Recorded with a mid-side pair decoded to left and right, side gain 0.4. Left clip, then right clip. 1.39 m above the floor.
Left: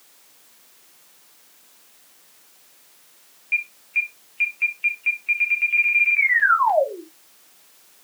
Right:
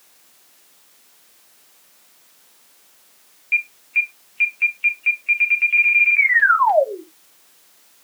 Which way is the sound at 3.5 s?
25° right.